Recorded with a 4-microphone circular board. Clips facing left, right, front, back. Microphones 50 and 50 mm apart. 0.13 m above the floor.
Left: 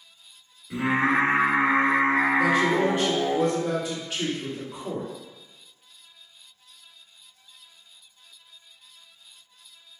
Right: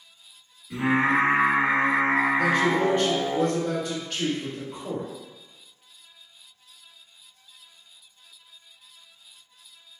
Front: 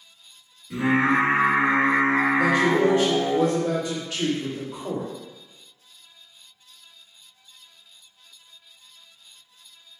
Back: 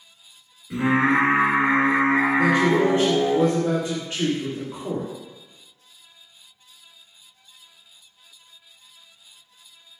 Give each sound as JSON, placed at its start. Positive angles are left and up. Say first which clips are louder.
{"t": 0.7, "sound": "singing", "louder": "right 1 dB, back 1 dB", "azimuth_deg": 145, "distance_m": 1.6}
{"t": 2.4, "sound": "a man speaking", "louder": "left 1 dB, back 1 dB", "azimuth_deg": 160, "distance_m": 1.9}